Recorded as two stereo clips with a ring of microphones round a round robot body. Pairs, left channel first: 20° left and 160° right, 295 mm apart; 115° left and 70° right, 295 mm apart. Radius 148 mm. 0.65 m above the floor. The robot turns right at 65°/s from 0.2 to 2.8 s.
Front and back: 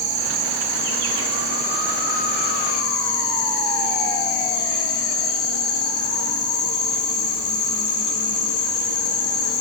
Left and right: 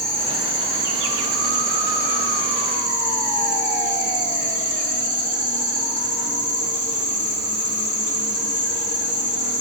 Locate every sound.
0.0 s an insect: 170° right, 2.5 m; by 9.6 s straight ahead, 2.5 m